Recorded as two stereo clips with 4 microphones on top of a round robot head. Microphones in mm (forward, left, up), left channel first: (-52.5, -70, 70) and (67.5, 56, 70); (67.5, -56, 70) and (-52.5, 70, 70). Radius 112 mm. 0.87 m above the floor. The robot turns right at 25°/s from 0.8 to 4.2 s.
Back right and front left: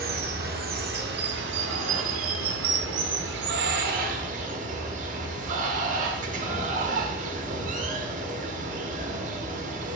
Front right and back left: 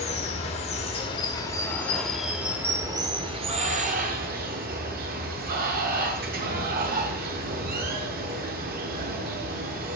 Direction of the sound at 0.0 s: 10° left.